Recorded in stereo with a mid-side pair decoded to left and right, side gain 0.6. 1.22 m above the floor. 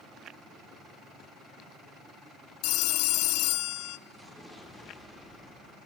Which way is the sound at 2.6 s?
70° left.